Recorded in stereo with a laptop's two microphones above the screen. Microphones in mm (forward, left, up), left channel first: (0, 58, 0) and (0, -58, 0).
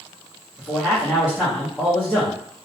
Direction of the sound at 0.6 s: 5° right (ahead or behind).